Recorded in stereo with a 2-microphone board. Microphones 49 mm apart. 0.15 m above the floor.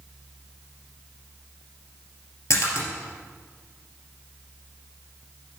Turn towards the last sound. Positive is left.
turn(degrees=65)  # may be behind; listen again after turning